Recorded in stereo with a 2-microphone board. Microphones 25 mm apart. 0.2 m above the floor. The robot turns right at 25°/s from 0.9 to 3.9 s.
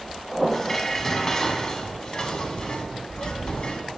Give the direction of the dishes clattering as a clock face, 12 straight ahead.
11 o'clock.